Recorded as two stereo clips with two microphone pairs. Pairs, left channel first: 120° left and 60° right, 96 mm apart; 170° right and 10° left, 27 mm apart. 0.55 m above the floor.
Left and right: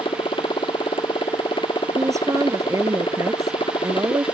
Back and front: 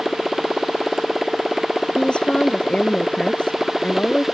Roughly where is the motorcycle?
Left.